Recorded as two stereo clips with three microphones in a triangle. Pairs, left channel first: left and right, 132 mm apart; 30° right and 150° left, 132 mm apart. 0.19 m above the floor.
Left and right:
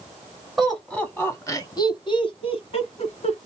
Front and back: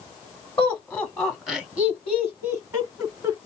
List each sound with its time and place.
0.6 s laughter: 15° right, 1.1 m; by 3.4 s 95° left, 1.9 m